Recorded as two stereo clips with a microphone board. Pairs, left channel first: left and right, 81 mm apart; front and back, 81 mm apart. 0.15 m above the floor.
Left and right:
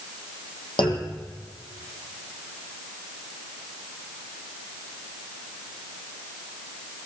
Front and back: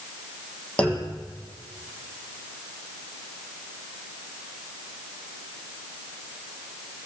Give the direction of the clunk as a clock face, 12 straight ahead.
9 o'clock.